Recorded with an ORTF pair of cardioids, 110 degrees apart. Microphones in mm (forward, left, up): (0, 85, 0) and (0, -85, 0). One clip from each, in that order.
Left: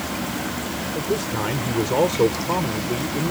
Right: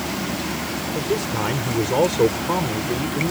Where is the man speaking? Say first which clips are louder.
Right 1 dB; 5° right.